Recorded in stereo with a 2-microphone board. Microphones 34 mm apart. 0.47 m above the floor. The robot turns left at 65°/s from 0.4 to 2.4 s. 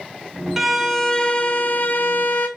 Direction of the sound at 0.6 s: 165° right.